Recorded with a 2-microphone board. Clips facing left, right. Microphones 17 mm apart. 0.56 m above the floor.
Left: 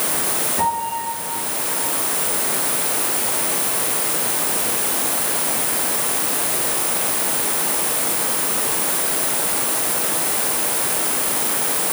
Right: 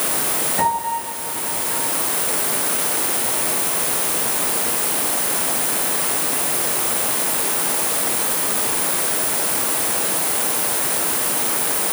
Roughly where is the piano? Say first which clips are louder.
Right 2 dB; centre.